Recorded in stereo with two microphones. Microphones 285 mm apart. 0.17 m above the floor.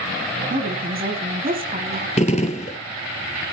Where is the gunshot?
25° left (ahead or behind), 0.8 m.